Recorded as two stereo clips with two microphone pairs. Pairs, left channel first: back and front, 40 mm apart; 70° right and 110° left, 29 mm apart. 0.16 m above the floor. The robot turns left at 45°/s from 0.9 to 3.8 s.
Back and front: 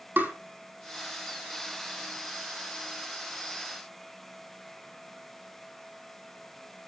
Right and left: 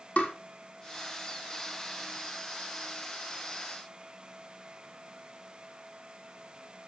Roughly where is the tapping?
Ahead right.